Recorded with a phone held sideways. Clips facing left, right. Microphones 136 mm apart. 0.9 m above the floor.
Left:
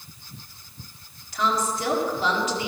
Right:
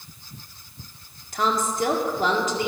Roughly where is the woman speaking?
Right.